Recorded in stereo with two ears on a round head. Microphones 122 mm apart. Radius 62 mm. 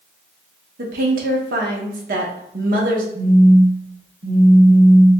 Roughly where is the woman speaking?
Right.